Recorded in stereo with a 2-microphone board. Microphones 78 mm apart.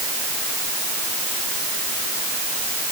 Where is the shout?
No shout in this recording.